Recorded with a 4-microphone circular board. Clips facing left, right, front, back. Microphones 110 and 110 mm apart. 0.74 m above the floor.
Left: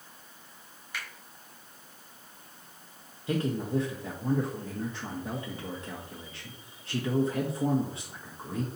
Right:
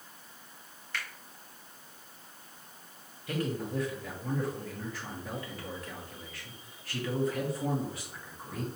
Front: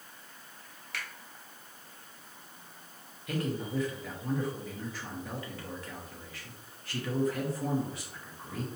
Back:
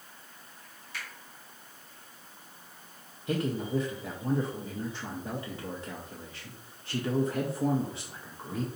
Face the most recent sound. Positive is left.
turn(degrees=135)